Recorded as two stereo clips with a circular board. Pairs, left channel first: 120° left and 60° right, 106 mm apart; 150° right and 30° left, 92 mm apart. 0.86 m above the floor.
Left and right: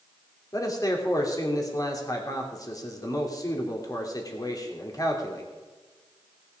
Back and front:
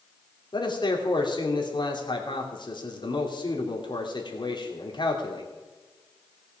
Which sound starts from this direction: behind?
A man speaking, at 0.5 s.